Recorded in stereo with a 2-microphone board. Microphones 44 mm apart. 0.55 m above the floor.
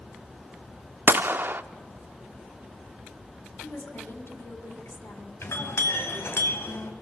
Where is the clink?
80° left, 2.5 m.